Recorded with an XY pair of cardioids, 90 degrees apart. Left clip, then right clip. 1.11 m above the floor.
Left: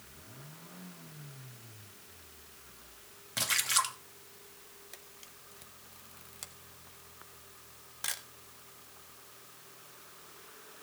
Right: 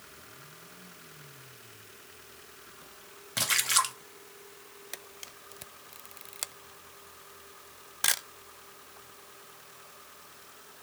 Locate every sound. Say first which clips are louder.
3.4 s a splash: right 3 dB; 25° right, 1.2 m
4.9 s a camera shutter: right 10 dB; 70° right, 0.5 m